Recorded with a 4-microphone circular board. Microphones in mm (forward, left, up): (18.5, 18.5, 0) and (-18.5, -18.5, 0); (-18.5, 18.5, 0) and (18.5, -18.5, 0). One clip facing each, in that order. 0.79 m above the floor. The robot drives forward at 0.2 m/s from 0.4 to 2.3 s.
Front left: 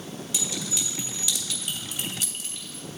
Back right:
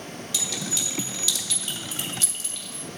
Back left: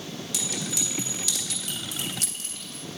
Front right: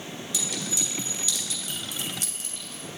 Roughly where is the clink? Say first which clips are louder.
Back right 1 dB, even; behind left.